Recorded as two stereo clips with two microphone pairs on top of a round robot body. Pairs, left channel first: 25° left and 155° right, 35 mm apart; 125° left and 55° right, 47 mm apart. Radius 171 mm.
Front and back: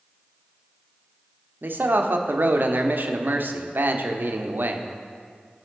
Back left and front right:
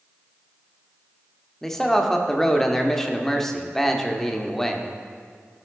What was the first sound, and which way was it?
A man speaking, 150° right.